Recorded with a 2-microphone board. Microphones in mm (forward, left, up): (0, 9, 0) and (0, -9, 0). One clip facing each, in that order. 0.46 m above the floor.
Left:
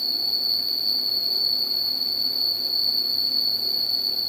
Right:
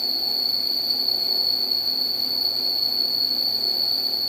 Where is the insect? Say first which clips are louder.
Right 1 dB; 60° right (ahead or behind), 1.5 m.